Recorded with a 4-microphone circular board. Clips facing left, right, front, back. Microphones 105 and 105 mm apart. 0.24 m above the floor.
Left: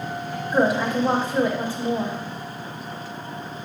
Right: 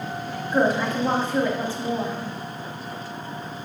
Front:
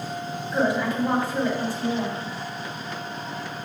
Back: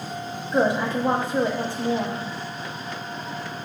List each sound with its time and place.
0.5 s a woman speaking: 150° left, 1.1 m